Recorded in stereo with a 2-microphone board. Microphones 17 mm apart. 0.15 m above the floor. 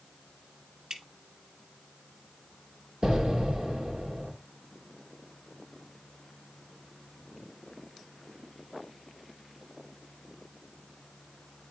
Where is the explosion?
45° right (ahead or behind), 2.5 m.